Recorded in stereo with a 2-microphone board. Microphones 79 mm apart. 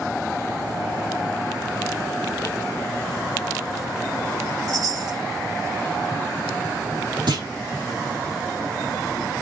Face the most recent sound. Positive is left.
turn(degrees=-75)  # may be behind; listen again after turning